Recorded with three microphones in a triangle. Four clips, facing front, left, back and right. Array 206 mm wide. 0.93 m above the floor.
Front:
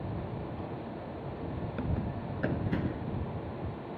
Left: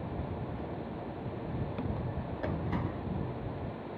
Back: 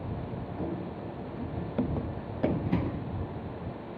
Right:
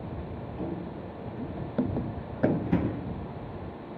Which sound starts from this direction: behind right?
Running footsteps, at 0.6 s.